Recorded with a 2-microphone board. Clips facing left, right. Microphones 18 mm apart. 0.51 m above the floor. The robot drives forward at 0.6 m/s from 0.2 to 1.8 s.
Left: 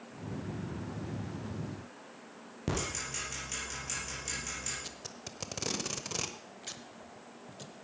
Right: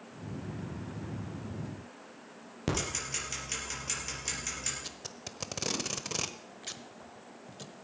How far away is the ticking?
About 5 m.